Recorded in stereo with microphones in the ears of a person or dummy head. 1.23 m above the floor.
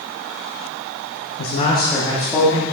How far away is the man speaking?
About 0.9 m.